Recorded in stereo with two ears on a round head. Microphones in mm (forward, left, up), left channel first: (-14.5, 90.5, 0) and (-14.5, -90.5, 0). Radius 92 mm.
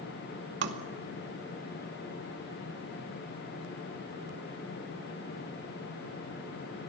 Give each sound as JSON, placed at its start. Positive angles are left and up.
{"t": 0.6, "sound": "tapping", "side_deg": -55, "distance_m": 2.5}